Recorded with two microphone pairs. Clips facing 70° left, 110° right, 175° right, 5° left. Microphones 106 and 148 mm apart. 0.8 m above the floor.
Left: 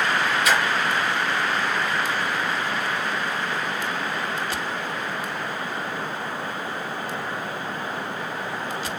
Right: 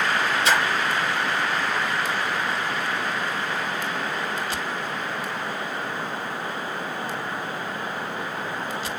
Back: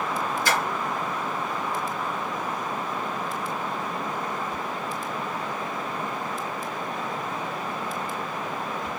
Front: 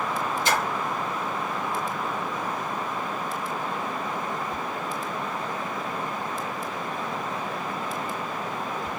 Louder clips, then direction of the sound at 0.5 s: Right 1 dB, front 1 dB; 55° right.